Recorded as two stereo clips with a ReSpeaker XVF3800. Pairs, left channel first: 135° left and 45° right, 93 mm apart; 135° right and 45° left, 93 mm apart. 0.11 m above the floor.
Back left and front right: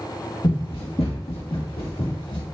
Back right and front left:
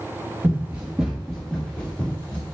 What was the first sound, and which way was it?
Running footsteps, 115° left.